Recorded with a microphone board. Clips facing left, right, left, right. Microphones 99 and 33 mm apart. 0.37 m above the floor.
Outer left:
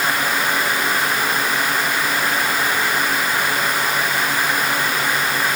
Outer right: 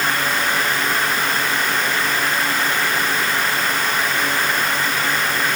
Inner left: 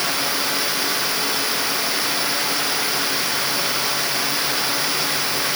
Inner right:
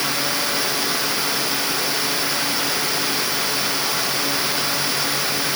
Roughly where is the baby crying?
No baby crying in this recording.